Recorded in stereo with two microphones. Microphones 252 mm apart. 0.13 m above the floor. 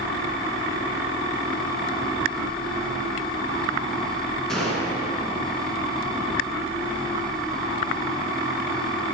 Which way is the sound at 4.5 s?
Centre (ahead or behind).